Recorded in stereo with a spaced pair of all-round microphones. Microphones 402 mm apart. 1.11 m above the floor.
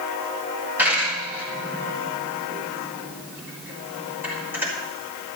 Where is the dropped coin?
5° right (ahead or behind), 3 m.